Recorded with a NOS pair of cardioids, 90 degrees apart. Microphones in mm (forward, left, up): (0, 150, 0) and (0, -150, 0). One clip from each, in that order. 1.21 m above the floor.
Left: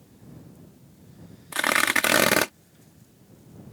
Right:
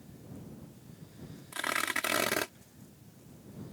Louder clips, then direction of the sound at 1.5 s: Left 10 dB; 65° left.